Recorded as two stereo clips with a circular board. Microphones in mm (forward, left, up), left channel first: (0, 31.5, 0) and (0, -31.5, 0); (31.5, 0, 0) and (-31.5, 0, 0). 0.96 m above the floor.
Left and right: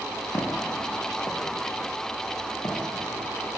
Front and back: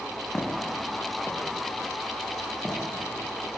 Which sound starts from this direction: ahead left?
Footsteps, at 0.3 s.